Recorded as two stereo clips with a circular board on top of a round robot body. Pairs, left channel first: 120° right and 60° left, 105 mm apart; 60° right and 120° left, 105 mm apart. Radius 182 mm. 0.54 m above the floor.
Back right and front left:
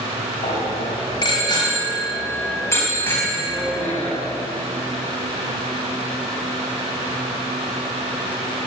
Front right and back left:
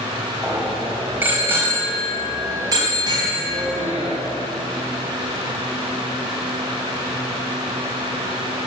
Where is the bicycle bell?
155° right, 3 m; by 4.2 s 160° left, 4 m.